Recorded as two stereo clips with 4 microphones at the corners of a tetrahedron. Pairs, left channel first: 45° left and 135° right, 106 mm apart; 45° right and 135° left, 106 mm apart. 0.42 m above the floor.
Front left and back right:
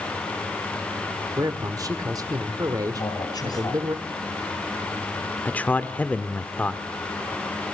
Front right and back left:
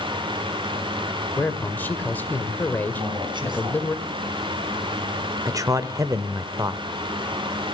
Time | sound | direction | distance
1.4 | a man speaking | 105° right | 1.6 m
3.0 | a man speaking | 95° left | 3.5 m
5.5 | a man speaking | 110° left | 0.9 m